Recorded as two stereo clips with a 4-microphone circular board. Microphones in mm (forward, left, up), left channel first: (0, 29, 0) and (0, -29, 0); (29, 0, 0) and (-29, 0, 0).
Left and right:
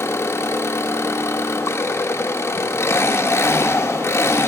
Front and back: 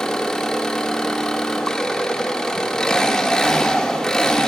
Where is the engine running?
80° left, 0.8 m.